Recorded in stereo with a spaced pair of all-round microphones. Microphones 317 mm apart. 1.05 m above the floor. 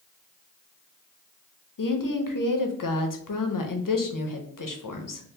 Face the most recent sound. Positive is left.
turn(degrees=85)